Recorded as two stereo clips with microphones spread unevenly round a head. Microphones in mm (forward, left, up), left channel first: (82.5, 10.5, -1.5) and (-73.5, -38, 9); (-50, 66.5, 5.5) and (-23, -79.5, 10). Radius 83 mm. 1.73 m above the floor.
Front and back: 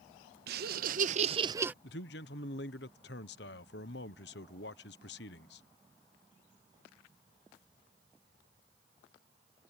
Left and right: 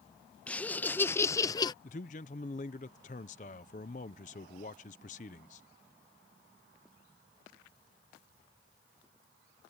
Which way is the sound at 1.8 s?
50° left.